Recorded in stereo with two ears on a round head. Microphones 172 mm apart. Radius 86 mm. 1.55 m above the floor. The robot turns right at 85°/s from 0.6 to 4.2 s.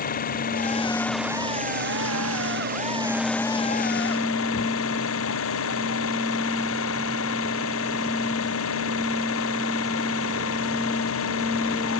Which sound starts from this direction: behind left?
An engine running, at 0.0 s.